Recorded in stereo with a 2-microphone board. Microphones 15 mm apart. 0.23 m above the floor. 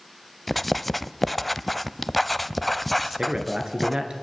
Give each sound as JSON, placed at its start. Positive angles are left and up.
{"t": 0.5, "sound": "writing", "side_deg": 5, "distance_m": 0.7}
{"t": 3.0, "sound": "a man speaking", "side_deg": -60, "distance_m": 3.5}